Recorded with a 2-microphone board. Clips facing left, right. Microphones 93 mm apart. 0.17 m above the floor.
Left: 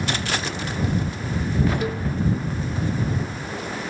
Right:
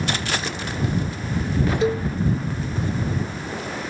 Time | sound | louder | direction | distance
1.8 | a cowbell | right 5 dB | 25° right (ahead or behind) | ?